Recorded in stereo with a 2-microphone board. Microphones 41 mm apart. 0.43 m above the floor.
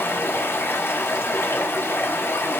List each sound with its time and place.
0.0 s running water: 80° left, 1.1 m